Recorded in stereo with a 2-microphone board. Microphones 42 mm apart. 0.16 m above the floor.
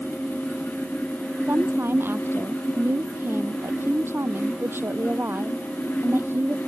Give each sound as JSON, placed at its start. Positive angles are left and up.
{"t": 1.5, "sound": "a woman speaking", "side_deg": -65}